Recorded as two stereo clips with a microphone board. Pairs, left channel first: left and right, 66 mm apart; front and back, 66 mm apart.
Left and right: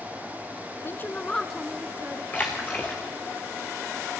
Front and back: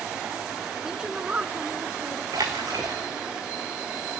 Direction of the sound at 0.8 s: 100° left.